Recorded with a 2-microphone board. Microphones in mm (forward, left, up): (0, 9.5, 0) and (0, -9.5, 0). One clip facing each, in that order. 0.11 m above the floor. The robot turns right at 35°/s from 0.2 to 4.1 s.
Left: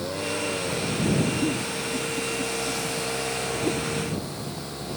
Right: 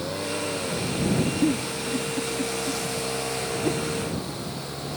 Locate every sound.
1.4 s a giggle: 85° right; by 3.8 s 5° right (ahead or behind)